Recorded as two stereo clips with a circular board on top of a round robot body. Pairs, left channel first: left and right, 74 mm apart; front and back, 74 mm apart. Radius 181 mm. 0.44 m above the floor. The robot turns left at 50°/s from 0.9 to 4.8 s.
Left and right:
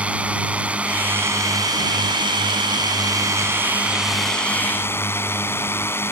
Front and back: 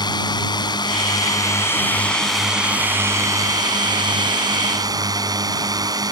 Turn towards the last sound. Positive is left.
turn(degrees=150)